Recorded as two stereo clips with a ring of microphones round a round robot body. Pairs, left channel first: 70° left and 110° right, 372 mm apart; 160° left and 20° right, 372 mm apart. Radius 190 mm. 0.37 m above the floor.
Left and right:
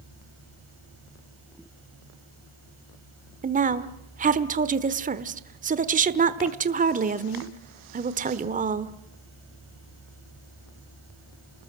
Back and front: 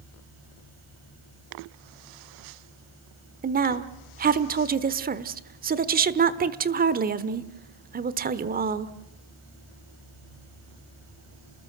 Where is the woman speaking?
65° right, 1.1 m.